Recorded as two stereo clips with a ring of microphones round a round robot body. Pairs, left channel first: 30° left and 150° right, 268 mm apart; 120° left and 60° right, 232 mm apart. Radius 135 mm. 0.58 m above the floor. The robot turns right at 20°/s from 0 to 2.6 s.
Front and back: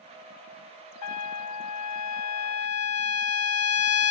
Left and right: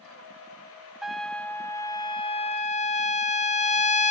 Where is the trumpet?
30° left, 0.8 m; by 4.1 s 60° left, 0.8 m.